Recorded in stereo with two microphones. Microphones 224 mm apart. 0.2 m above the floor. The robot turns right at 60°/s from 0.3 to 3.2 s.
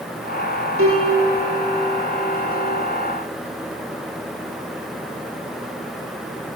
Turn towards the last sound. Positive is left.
turn(degrees=70)